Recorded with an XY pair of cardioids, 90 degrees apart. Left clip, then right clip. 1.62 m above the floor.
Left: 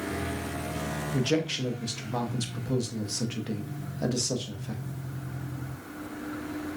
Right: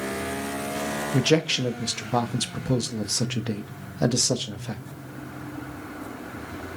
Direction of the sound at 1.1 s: 65° right.